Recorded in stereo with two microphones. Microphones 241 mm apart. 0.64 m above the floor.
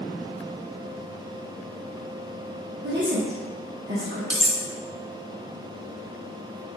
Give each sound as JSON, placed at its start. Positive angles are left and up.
{"t": 2.8, "sound": "a woman speaking", "side_deg": -50, "distance_m": 1.1}
{"t": 4.3, "sound": "cutlery clinking", "side_deg": -5, "distance_m": 0.5}